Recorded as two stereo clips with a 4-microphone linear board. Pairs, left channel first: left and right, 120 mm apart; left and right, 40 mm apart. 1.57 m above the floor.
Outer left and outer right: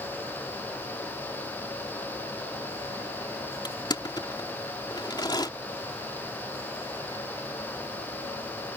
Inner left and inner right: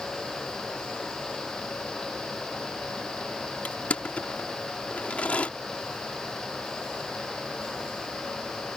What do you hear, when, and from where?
3.6 s crushing: 35° left (ahead or behind)